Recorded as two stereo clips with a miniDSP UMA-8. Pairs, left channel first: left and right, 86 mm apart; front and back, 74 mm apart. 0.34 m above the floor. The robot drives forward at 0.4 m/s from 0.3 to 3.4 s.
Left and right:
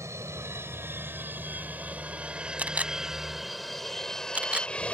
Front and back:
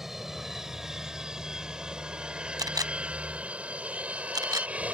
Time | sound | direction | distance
0.0 | an aircraft | 95° right | ?
2.6 | a camera shutter | 160° right | ?